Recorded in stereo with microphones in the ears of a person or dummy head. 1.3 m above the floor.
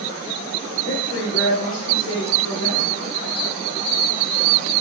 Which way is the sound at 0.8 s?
80° left.